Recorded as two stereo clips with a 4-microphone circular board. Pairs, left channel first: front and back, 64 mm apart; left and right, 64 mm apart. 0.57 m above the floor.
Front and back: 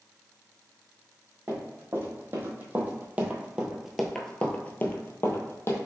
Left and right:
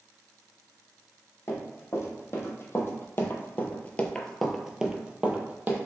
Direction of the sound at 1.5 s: 130° left.